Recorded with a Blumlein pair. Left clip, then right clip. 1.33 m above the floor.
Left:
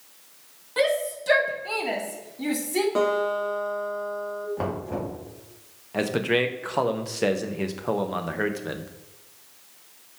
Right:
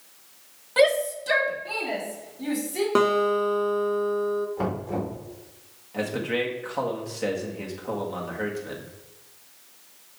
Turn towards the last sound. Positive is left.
turn(degrees=20)